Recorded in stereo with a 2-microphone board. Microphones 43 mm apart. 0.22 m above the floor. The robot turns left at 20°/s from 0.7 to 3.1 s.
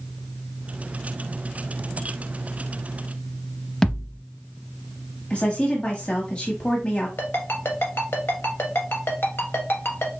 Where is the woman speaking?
30° left (ahead or behind), 1.1 m.